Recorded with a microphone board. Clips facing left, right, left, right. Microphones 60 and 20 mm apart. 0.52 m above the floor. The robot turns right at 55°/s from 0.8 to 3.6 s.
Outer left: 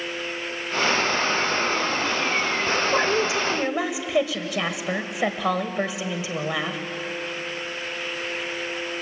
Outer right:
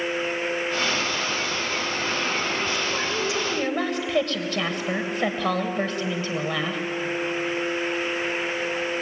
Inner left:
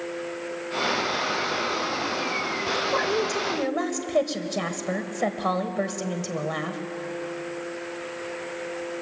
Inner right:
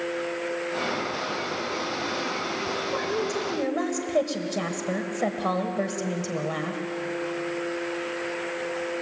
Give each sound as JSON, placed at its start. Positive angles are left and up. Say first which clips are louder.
{"t": 2.7, "sound": "a woman speaking", "louder": "outer left 5 dB, inner left 6 dB", "azimuth_deg": 125, "distance_m": 3.0}